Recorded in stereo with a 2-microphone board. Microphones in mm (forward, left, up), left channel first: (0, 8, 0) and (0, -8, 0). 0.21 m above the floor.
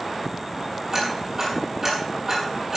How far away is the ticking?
About 4.5 m.